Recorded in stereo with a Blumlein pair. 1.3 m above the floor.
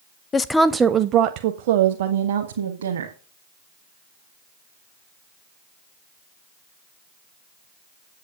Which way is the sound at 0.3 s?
20° left.